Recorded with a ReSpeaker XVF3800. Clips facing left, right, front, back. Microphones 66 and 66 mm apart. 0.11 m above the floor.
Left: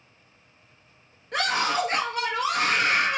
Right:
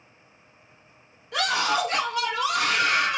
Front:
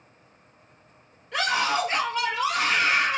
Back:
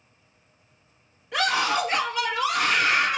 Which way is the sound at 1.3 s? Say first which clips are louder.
Right 1 dB, back 1 dB; 100° left.